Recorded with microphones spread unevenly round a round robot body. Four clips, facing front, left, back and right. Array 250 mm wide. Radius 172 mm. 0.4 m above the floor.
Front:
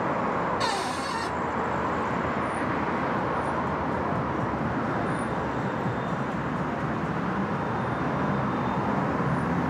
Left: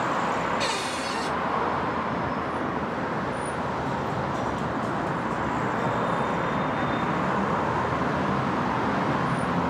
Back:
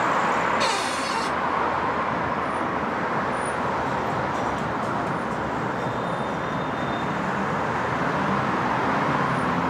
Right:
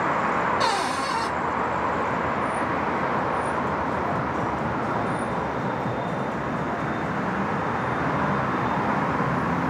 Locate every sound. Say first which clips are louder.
0.6 s a cupboard door: right 5 dB, back 3 dB; 90° right, 0.7 m